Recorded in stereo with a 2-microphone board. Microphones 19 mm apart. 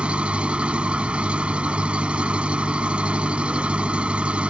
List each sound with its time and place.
0.0 s an engine running: 70° right (ahead or behind)